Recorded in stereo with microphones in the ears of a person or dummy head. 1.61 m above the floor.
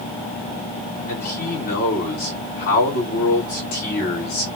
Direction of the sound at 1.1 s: 45° left (ahead or behind).